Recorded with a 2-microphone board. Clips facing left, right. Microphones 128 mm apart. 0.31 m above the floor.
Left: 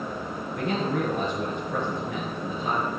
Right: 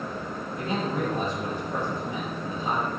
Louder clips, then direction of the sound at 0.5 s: Left 2 dB; 75° left (ahead or behind).